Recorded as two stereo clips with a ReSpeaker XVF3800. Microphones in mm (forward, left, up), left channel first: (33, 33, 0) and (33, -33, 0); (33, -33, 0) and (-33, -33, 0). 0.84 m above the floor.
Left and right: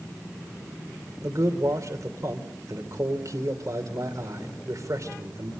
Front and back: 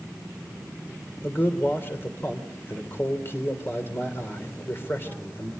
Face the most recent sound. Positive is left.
turn(degrees=-55)